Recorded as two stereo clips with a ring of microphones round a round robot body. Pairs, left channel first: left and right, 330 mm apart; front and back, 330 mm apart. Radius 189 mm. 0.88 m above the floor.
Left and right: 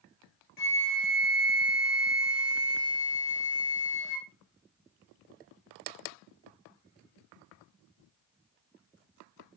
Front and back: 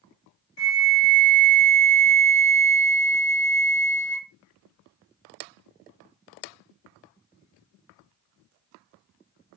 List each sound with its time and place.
0.6 s a flute: 55° left, 0.8 m